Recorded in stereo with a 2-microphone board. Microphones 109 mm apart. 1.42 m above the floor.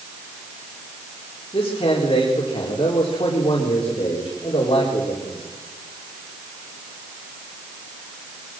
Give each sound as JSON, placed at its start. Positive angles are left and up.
{"t": 1.5, "sound": "a man speaking", "side_deg": 55, "distance_m": 4.0}